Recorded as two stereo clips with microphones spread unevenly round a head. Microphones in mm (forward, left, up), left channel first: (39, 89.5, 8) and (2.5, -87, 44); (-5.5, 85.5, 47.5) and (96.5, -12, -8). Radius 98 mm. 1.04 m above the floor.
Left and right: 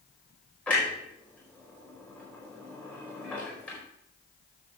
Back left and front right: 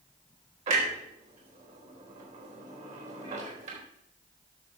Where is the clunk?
5° right, 4 m.